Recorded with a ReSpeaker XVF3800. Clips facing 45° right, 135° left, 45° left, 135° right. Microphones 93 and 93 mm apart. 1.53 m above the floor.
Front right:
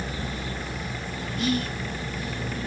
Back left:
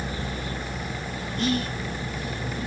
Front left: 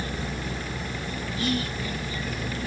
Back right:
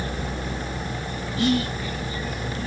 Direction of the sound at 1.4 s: 130° right.